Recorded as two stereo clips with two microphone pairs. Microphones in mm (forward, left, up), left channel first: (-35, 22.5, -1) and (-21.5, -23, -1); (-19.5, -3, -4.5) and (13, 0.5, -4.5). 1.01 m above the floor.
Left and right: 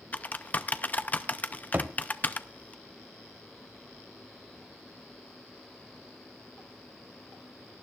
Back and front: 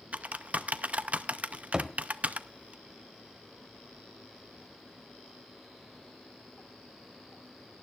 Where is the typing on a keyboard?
55° left, 0.5 m.